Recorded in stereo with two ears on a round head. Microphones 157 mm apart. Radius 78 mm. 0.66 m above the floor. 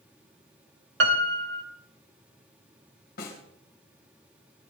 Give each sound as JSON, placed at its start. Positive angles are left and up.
{"t": 1.0, "sound": "a piano", "side_deg": -65, "distance_m": 1.7}
{"t": 3.2, "sound": "a snare drum", "side_deg": 55, "distance_m": 4.0}